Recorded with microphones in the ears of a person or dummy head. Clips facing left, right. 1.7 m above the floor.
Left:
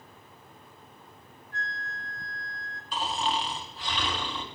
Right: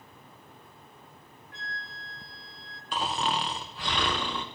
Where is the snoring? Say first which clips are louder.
Even; 55° right (ahead or behind), 0.9 m.